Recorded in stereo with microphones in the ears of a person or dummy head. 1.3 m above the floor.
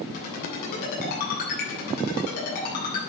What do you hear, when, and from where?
0.1 s a ringtone: 55° left (ahead or behind), 10 m